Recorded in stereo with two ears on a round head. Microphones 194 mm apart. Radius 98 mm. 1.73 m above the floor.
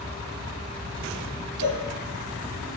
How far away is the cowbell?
About 1.4 m.